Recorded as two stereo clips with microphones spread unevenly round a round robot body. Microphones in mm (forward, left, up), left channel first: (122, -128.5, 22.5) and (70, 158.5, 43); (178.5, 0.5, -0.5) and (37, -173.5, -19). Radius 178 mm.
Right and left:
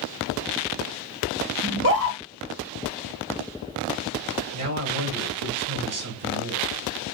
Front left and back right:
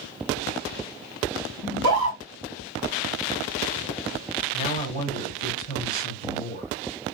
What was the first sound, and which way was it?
A scream, 65° left.